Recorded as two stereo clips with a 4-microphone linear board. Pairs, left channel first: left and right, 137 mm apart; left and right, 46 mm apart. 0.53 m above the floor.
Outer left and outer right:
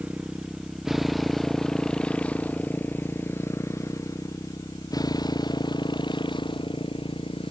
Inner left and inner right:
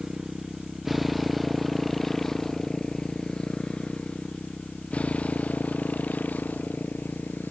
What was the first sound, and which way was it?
A motorcycle, 10° right (ahead or behind).